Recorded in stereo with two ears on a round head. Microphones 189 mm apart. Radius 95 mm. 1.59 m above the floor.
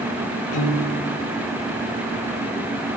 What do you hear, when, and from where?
0.5 s a piano: 80° left, 5 m